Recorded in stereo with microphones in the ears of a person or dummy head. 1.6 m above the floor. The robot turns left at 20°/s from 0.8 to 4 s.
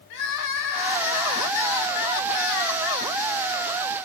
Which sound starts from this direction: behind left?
Crying, at 0.1 s.